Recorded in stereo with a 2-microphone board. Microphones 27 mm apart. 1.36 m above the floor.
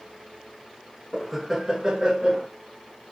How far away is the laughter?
About 0.5 m.